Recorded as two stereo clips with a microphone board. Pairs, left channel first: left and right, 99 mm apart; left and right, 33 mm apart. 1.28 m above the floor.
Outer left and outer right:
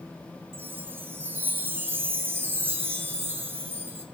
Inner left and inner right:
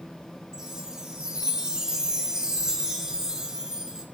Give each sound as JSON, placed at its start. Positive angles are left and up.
{"t": 0.5, "sound": "a chime", "side_deg": -25, "distance_m": 3.0}